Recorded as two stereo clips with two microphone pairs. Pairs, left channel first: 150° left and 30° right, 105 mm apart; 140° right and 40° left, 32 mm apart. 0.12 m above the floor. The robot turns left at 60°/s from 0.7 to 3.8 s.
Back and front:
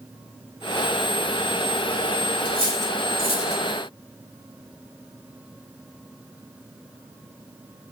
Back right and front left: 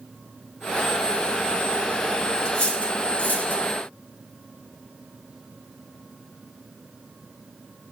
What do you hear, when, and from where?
2.5 s cutlery clinking: 70° right, 2.5 m; by 3.6 s 140° right, 2.5 m